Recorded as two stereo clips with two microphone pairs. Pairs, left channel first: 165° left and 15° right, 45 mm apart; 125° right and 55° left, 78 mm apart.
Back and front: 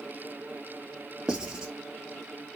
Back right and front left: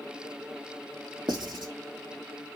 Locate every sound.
1.3 s writing: 60° left, 0.9 m